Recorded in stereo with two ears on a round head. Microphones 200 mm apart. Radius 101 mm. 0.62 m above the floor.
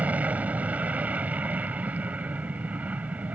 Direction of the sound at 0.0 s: 5° right (ahead or behind).